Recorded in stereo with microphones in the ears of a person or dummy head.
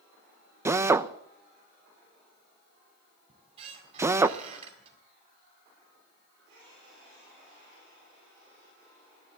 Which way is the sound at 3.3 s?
35° right (ahead or behind).